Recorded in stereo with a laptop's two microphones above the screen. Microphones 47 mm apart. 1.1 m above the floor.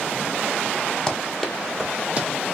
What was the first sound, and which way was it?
Running footsteps, 10° left (ahead or behind).